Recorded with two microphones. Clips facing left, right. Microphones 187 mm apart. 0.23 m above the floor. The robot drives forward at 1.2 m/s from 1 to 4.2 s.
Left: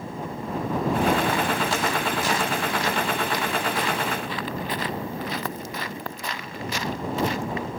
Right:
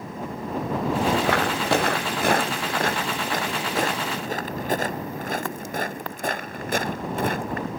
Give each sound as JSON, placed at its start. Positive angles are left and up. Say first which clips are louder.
{"t": 1.2, "sound": "footsteps", "louder": "right 2 dB", "side_deg": -75}